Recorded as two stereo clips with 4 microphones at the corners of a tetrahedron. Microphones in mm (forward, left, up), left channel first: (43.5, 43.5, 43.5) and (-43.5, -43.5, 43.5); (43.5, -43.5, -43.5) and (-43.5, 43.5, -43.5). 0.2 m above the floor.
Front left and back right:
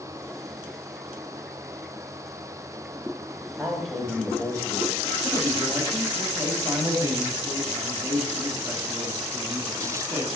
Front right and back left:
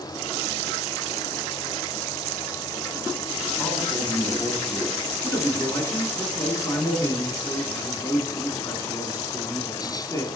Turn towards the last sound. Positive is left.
turn(degrees=-85)